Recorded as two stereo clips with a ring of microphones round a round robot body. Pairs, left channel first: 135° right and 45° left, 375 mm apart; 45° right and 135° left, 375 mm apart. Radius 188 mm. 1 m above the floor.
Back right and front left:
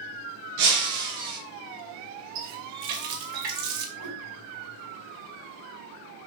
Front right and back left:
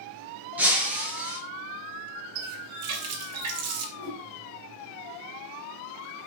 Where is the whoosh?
80° left, 6 m.